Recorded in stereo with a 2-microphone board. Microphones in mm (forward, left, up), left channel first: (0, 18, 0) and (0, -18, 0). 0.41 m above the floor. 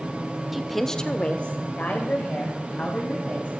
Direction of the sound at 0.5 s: 10° right (ahead or behind).